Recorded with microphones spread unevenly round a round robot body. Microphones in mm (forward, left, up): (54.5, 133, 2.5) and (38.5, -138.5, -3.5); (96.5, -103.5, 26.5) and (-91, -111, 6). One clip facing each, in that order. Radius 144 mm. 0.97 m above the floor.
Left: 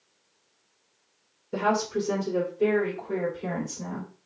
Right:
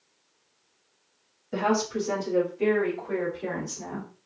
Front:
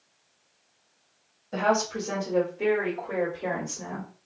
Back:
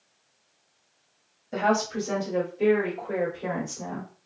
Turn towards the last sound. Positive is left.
turn(degrees=-75)